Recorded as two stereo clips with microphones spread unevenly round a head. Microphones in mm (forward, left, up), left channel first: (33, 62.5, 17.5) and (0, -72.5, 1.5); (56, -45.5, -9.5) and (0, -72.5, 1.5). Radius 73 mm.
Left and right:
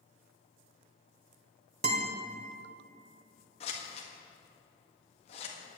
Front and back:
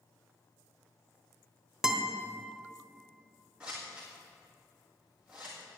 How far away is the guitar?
About 1.3 m.